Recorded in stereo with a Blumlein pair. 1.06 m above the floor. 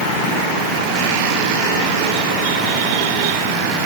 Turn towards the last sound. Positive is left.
No sound to turn to.